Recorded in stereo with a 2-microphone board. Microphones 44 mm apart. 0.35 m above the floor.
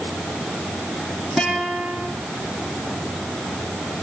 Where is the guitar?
Centre (ahead or behind), 7 m.